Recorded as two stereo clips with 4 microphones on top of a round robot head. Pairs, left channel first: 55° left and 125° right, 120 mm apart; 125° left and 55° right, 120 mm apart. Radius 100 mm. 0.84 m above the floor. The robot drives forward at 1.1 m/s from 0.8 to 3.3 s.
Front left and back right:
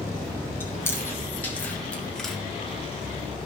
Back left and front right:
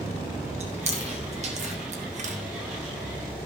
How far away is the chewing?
About 3.5 m.